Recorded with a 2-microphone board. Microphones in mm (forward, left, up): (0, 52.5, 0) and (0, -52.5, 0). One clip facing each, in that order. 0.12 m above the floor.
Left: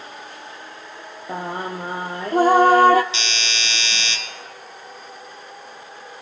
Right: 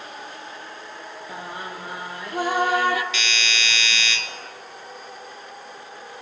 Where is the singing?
45° left (ahead or behind), 0.7 m.